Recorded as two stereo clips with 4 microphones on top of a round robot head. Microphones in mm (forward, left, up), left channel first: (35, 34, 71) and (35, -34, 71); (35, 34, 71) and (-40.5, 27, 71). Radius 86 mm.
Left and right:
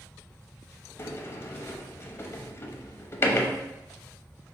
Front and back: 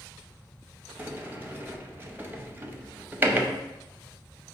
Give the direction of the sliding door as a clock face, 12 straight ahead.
8 o'clock.